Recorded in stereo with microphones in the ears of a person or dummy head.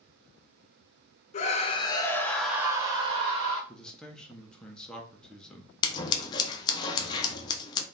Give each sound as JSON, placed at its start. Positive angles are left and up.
{"t": 1.3, "sound": "a scream", "side_deg": 35, "distance_m": 0.7}
{"t": 3.7, "sound": "a man speaking", "side_deg": 0, "distance_m": 0.8}
{"t": 5.8, "sound": "scissors", "side_deg": 20, "distance_m": 0.6}